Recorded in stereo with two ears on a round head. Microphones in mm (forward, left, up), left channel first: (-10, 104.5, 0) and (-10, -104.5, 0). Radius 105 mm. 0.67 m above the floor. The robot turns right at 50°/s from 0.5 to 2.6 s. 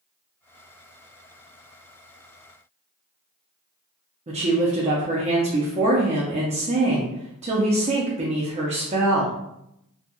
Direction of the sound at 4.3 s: 30° right (ahead or behind).